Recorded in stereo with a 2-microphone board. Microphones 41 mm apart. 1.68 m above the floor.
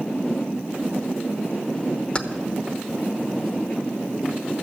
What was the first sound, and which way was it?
Keys jangling, 20° left (ahead or behind).